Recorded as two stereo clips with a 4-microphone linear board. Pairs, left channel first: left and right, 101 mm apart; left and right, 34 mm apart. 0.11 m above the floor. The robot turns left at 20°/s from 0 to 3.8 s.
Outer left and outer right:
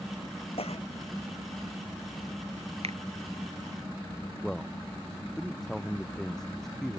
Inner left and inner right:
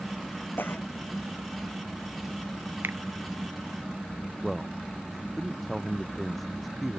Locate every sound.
0.6 s a cough: 70° left (ahead or behind); by 0.9 s 75° left (ahead or behind)
2.8 s a finger snap: 80° right
4.4 s a man speaking: 5° left (ahead or behind)